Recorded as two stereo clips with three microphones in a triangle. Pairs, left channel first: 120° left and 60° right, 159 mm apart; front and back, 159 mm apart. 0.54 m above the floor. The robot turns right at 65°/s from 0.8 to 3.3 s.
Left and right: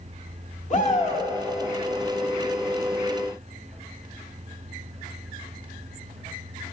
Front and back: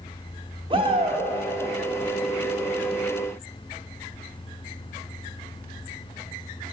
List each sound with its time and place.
0.7 s a shout: 135° left, 1.1 m; by 1.3 s 165° left, 1.1 m